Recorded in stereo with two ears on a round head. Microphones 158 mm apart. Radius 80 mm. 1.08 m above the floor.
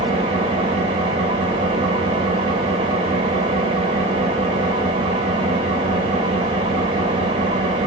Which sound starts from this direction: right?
An engine running, at 0.0 s.